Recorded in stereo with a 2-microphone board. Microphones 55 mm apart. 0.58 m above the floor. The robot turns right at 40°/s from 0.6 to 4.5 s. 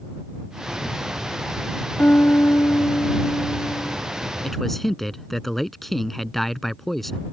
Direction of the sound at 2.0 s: 35° left.